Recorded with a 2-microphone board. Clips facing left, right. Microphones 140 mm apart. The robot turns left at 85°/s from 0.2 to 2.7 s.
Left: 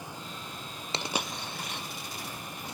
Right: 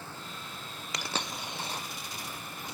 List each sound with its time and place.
0.9 s a dropped coin: 30° left (ahead or behind), 0.9 m; by 1.8 s 45° right (ahead or behind), 0.9 m